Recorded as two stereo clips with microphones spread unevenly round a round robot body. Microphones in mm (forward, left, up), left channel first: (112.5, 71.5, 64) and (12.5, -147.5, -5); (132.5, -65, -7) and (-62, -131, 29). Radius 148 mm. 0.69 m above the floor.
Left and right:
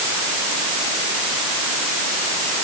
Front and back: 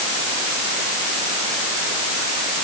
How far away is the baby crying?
I don't hear a baby crying.